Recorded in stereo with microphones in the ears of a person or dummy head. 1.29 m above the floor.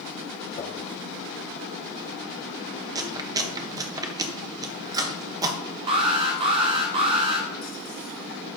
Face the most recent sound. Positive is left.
turn(degrees=-30)  # may be behind; listen again after turning